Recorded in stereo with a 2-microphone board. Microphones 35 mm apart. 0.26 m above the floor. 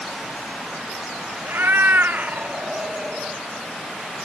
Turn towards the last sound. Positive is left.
turn(degrees=-10)  # may be behind; listen again after turning